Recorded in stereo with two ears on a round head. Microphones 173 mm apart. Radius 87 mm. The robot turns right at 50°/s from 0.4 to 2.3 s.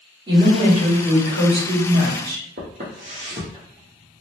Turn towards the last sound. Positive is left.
turn(degrees=-15)  # may be behind; listen again after turning